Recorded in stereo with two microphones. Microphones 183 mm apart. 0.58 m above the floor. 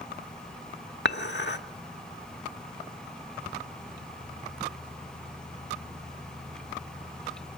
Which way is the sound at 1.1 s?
70° left (ahead or behind).